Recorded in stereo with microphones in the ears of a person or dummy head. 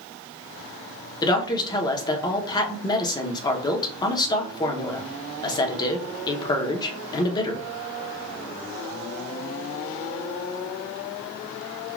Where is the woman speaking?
25° left (ahead or behind), 0.7 m.